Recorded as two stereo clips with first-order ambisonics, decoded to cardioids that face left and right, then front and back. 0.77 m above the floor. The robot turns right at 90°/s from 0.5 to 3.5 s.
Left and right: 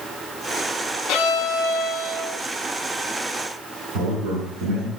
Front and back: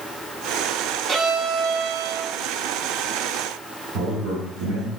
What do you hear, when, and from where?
1.1 s a violin: 90° left, 1.6 m; by 2.3 s 160° right, 1.6 m
3.9 s a man speaking: 140° right, 7 m